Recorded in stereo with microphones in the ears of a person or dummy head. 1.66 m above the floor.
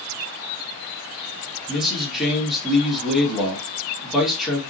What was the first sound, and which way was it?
A man speaking, centre (ahead or behind).